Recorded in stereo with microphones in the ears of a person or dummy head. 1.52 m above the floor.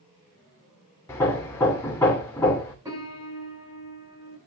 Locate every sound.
1.1 s hammering: 15° left (ahead or behind), 2.5 m
2.9 s a piano: 15° right (ahead or behind), 8 m